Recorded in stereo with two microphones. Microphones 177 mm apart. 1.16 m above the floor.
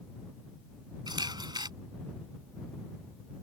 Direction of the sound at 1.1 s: 25° right (ahead or behind).